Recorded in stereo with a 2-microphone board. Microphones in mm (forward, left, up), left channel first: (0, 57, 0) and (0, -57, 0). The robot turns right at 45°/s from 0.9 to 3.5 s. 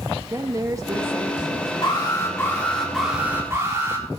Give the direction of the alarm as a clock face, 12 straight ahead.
8 o'clock.